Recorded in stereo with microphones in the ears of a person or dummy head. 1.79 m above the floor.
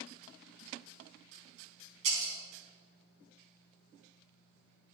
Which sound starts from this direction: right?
Breaking glass, at 2.0 s.